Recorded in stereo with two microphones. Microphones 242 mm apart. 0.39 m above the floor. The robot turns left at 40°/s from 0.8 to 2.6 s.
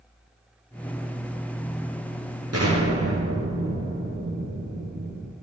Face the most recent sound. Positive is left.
turn(degrees=-80)